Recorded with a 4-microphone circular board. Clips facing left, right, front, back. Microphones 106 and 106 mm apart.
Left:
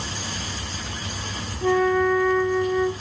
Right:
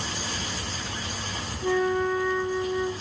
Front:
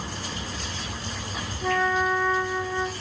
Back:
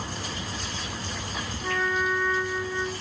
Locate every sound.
1.6 s a flute: 95° left, 0.9 m